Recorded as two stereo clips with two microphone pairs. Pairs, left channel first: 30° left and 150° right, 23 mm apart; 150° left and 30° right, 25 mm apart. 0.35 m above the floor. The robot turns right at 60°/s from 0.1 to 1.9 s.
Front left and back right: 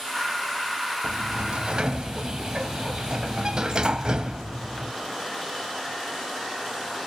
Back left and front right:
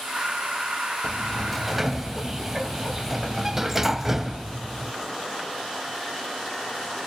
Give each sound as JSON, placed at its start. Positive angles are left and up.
{"t": 1.0, "sound": "a sliding door", "azimuth_deg": -155, "distance_m": 1.0}